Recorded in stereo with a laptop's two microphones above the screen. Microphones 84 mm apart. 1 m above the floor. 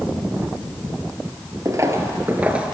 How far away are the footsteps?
About 1.2 m.